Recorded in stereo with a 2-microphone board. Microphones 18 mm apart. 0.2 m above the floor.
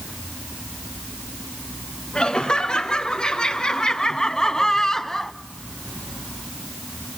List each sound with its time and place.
2.1 s laughter: 55° left (ahead or behind), 2 m; by 5.3 s 20° left (ahead or behind), 1.2 m